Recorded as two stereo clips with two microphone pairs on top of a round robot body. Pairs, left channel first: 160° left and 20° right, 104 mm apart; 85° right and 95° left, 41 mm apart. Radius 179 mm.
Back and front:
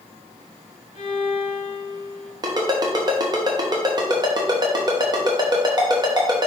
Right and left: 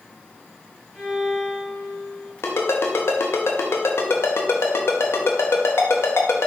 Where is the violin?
15° left, 3 m.